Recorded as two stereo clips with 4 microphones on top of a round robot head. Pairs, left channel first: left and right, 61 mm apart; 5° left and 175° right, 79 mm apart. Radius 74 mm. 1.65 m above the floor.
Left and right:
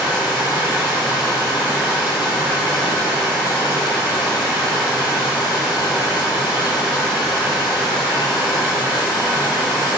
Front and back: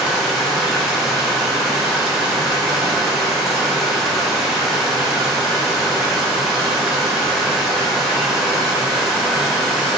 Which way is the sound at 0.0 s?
100° left.